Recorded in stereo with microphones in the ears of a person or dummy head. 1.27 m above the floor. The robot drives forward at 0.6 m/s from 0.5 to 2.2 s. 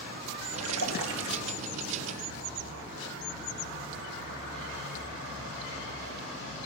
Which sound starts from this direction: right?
A splash, at 0.5 s.